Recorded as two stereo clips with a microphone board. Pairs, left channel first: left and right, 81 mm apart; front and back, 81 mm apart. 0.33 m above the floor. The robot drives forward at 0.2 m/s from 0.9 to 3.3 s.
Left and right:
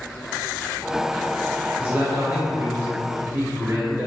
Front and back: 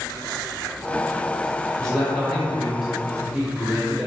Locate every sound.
1.8 s a man speaking: 75° right, 0.9 m; by 4.1 s 110° right, 0.9 m